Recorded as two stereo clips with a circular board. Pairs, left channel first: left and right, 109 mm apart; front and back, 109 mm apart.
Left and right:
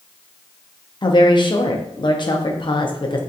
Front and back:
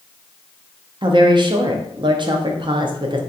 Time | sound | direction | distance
1.0 | a woman speaking | 135° left | 0.6 m